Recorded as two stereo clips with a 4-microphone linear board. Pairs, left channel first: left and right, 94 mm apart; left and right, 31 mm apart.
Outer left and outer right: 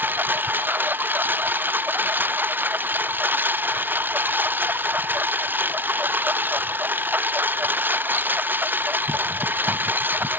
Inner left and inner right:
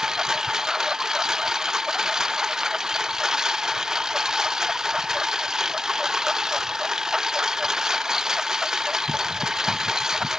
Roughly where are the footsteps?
No footsteps in this recording.